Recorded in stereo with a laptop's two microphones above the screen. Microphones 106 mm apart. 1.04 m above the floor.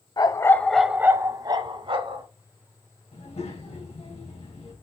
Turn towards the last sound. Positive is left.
turn(degrees=80)